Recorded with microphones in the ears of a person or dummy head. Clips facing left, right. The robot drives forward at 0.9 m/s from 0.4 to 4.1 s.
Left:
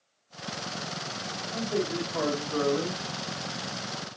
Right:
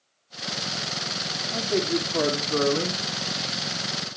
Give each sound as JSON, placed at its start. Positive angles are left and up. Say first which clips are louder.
{"t": 1.5, "sound": "a man speaking", "louder": "right 4 dB", "side_deg": -60, "distance_m": 3.0}